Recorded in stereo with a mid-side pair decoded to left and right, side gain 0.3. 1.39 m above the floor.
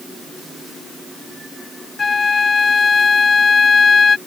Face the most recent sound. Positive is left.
turn(degrees=50)